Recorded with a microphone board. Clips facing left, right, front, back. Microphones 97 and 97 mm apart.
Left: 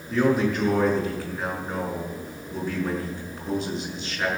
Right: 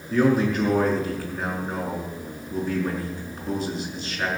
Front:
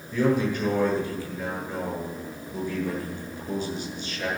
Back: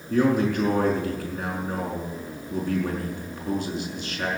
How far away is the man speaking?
About 5.5 m.